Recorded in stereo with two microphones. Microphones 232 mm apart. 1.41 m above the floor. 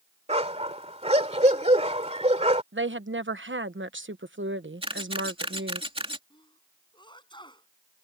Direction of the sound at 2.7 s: 55° right (ahead or behind).